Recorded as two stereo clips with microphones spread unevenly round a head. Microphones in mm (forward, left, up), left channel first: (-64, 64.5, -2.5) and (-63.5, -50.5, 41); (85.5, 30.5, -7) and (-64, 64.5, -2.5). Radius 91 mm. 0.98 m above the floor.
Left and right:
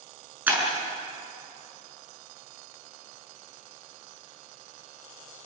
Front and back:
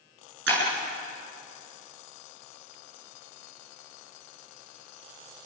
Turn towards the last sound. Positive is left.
turn(degrees=-165)